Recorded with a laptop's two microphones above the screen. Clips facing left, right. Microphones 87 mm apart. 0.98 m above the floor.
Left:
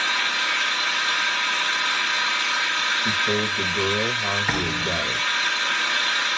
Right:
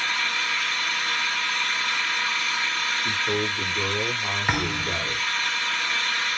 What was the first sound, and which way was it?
An engine running, 65° left (ahead or behind).